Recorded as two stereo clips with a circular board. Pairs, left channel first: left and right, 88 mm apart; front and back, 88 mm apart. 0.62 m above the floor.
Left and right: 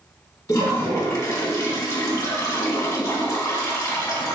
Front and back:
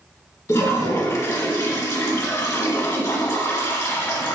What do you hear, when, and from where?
0.5 s a toilet flushing: 45° left, 0.7 m